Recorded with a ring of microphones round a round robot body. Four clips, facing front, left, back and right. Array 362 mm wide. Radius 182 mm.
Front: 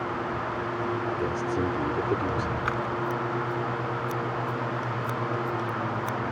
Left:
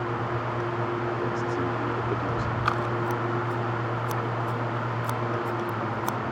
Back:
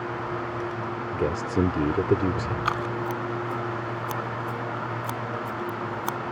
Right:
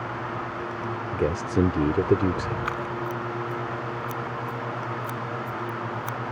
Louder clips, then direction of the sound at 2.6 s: Left 3 dB, back 1 dB; 145° left.